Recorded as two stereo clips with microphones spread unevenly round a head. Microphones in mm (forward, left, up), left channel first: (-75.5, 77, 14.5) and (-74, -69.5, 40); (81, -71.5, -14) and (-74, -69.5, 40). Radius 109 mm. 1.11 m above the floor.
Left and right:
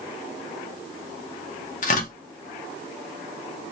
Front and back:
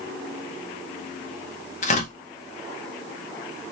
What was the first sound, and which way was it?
Tearing paper, 45° left.